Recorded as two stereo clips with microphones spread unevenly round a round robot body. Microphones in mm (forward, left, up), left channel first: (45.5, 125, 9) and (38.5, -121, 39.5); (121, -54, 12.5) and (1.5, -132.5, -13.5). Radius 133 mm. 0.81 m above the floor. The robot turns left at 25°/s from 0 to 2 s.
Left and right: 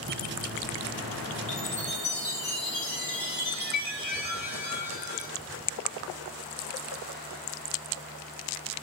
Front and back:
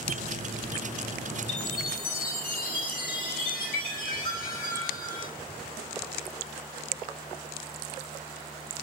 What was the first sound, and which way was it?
A chime, 50° left.